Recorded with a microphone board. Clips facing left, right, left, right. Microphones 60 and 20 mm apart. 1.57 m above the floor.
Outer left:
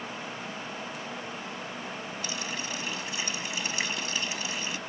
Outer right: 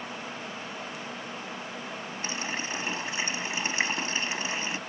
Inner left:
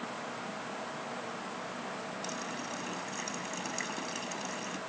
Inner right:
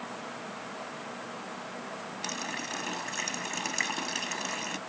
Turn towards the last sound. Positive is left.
turn(degrees=-30)  # may be behind; listen again after turning